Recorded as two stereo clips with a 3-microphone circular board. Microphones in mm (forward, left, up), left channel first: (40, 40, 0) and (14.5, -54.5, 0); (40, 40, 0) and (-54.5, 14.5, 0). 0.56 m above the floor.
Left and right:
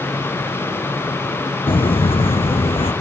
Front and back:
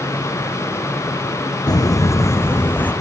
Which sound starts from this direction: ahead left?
Footsteps, at 1.7 s.